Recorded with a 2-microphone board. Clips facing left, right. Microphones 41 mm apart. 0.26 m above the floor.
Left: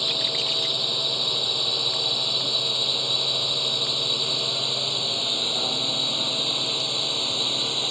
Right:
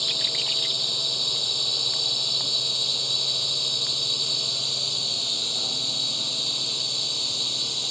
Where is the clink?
I don't hear a clink.